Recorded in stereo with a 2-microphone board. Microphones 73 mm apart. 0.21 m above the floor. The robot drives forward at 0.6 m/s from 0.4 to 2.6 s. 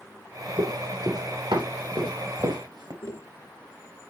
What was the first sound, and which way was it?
Running footsteps, 85° right.